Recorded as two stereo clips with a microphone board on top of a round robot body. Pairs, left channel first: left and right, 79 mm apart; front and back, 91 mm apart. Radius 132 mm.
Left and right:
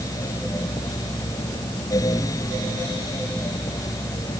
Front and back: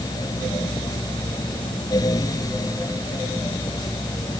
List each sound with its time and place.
Only background noise.